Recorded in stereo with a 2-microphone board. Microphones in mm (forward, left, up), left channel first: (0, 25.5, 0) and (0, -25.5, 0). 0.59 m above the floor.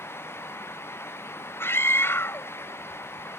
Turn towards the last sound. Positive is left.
turn(degrees=50)  # may be behind; listen again after turning